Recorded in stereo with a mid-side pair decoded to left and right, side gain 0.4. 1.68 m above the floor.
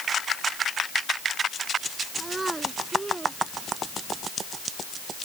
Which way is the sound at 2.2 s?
25° right.